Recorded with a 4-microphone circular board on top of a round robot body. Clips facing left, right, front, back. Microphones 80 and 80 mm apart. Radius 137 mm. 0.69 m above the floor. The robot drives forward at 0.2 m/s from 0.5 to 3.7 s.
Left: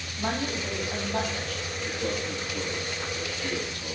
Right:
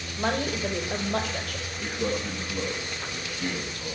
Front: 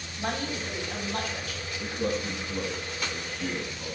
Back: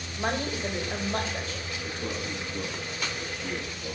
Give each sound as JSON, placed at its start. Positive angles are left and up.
{"t": 0.2, "sound": "a woman speaking", "azimuth_deg": -120, "distance_m": 3.0}
{"t": 1.8, "sound": "a man speaking", "azimuth_deg": -35, "distance_m": 8.5}